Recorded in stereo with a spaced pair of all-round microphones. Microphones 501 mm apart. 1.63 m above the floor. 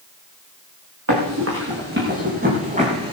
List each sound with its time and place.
1.1 s running footsteps: 30° right (ahead or behind), 7 m; by 3.1 s 10° right (ahead or behind), 5.5 m